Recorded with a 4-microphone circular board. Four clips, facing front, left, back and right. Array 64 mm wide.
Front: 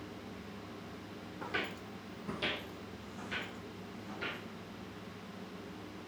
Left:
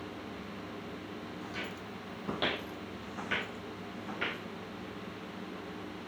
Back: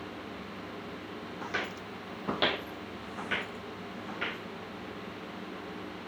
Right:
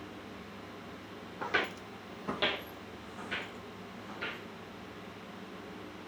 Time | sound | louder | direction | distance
1.4 | footsteps | right 12 dB, back 3 dB | 105° right | 0.8 m